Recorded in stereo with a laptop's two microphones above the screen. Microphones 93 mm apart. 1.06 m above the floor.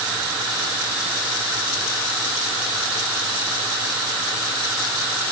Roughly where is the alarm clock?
I don't hear an alarm clock.